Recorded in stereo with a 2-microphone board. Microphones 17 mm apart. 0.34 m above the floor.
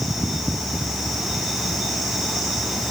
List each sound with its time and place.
Only background noise.